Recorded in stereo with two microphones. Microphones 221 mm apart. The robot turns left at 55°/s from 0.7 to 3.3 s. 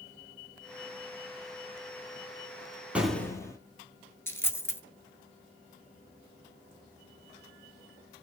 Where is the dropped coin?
10° left (ahead or behind), 0.9 m.